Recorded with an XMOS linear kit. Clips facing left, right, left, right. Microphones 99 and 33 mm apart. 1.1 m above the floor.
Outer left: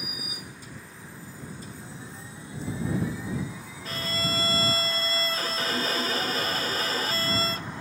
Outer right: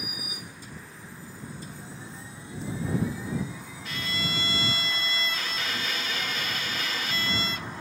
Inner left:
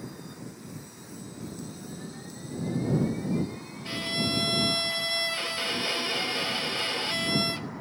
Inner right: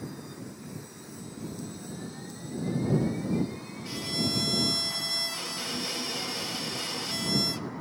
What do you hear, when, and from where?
3.9 s a violin: 35° left (ahead or behind)